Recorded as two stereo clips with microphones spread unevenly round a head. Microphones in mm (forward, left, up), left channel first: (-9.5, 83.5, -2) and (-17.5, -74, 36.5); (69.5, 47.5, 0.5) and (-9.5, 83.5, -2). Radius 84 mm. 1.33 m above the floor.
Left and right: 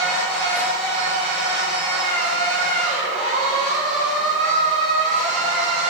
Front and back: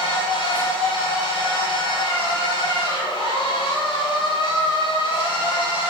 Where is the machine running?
5° right, 6.5 m.